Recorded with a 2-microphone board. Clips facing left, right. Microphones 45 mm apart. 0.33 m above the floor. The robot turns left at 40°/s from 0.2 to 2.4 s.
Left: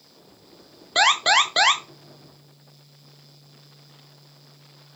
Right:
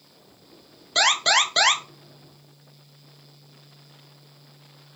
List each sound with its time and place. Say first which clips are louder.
0.9 s an alarm: left 2 dB; 15° left (ahead or behind), 0.6 m; by 1.8 s 5° left (ahead or behind), 0.6 m